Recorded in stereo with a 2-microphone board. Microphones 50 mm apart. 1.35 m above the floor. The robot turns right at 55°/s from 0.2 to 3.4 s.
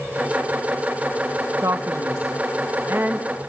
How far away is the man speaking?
About 1.5 m.